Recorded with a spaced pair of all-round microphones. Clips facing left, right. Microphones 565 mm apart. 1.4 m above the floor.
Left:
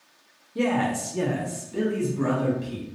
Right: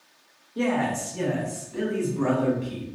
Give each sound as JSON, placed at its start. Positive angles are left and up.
{"t": 0.6, "sound": "a man speaking", "side_deg": 50, "distance_m": 0.6}